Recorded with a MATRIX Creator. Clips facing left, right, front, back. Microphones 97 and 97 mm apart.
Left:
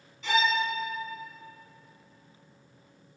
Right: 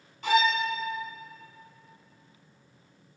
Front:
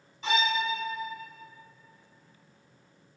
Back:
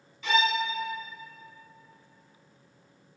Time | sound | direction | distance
0.2 | a violin | 55° right | 1.2 m